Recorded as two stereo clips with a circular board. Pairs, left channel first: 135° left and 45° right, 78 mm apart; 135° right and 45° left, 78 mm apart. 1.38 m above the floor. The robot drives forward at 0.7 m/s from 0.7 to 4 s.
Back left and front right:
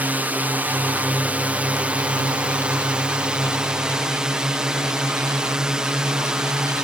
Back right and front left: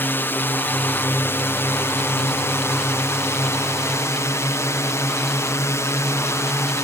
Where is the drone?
95° right; by 6.8 s 120° right.